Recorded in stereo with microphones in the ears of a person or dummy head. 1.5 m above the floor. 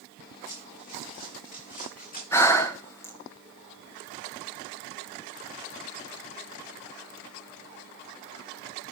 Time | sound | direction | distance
0.5 | running footsteps | 35° left (ahead or behind) | 6 m
2.3 | breathing | 5° left (ahead or behind) | 1.1 m